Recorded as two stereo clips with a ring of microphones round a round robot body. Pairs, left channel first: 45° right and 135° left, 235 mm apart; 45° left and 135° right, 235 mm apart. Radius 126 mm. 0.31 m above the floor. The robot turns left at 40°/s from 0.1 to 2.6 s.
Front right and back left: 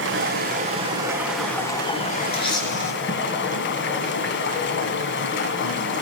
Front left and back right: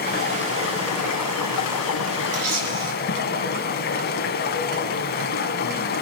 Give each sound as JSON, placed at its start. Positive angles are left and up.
{"t": 0.0, "sound": "running water", "azimuth_deg": 95, "distance_m": 1.6}
{"t": 2.3, "sound": "a camera shutter", "azimuth_deg": -110, "distance_m": 4.5}